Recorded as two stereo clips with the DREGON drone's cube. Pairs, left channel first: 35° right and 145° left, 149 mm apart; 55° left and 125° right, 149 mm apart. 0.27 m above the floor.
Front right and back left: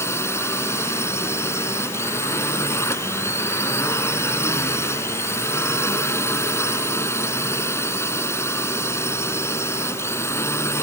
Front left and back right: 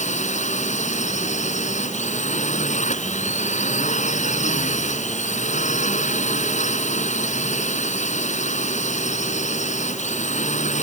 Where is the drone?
35° left.